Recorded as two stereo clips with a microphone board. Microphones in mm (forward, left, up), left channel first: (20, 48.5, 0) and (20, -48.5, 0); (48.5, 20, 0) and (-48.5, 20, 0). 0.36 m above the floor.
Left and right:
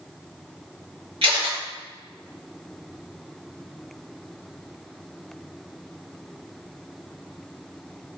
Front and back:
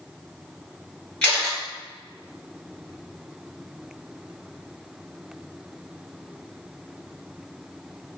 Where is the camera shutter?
75° right, 1.8 m.